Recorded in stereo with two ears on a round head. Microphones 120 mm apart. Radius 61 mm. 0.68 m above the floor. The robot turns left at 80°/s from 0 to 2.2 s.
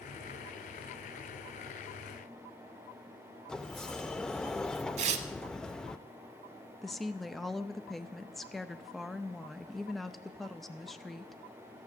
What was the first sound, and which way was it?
A sliding door, 5° left (ahead or behind).